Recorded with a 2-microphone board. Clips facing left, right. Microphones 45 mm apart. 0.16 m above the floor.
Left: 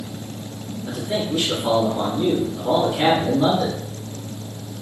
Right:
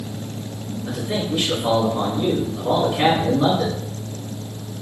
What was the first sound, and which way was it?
A man speaking, 20° right (ahead or behind).